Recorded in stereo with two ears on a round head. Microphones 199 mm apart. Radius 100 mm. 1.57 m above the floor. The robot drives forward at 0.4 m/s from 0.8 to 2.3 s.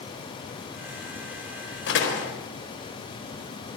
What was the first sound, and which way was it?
A door slam, 55° left (ahead or behind).